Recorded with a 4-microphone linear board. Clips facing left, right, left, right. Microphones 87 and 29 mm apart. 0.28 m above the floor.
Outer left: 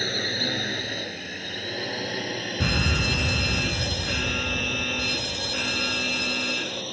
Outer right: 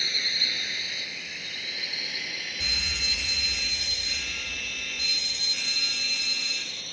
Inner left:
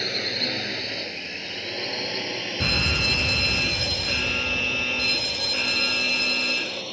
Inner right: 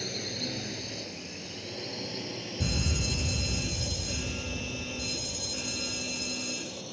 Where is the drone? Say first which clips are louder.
Outer left 7 dB, inner left 9 dB; 45° left (ahead or behind); by 6.9 s 50° left (ahead or behind).